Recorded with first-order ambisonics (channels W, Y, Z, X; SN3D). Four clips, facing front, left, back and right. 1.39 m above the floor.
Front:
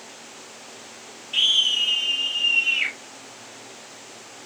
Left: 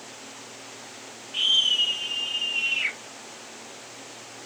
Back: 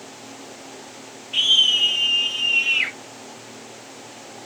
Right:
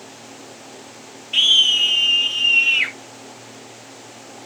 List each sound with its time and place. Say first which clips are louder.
1.3 s a scream: right 7 dB, back 3 dB; 90° right, 2.5 m; by 2.9 s 110° right, 4.5 m